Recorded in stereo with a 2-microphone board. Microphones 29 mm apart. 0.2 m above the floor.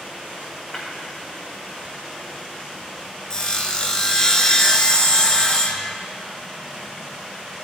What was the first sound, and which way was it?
Breaking glass, 40° left (ahead or behind).